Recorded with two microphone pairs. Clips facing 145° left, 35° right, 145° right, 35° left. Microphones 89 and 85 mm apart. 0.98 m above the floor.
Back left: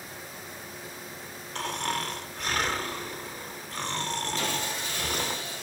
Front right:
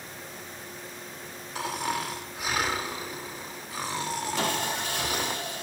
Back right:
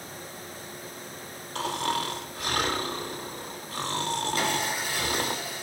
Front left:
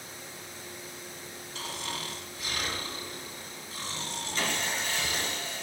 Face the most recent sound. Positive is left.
turn(degrees=-60)